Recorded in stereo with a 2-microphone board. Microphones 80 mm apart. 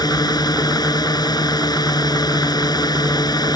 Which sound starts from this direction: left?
A drone, at 0.0 s.